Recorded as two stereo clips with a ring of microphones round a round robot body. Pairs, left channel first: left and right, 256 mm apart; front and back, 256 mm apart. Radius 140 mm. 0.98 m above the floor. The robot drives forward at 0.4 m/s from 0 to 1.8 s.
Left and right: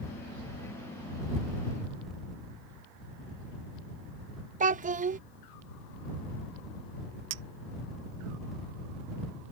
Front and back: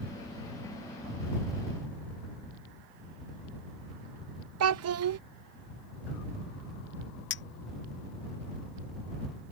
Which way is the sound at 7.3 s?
50° right.